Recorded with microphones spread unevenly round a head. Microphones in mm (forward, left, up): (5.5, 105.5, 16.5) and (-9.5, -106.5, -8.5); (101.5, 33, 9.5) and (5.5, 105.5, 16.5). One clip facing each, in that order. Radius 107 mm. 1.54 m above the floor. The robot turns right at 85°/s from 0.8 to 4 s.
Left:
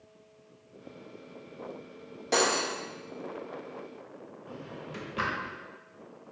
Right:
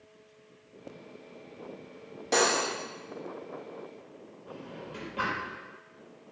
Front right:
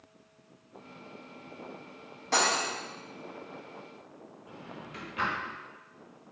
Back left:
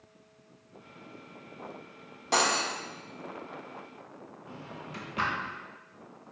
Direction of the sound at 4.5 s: 120° left.